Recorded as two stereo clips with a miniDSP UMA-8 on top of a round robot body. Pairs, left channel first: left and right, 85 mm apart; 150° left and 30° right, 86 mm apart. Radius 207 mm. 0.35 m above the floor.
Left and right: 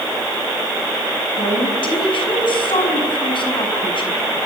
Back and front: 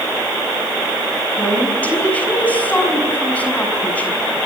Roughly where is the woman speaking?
Left.